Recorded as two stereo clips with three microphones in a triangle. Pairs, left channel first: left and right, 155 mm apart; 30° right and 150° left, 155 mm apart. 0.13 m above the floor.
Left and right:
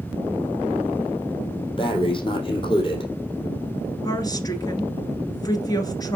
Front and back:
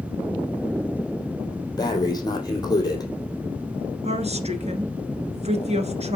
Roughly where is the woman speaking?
Behind left.